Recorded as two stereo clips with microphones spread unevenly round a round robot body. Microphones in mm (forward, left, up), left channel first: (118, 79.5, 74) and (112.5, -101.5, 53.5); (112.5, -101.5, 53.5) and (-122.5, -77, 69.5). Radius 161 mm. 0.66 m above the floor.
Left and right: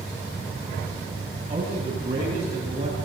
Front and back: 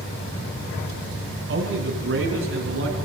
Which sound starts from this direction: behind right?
A man speaking, at 1.5 s.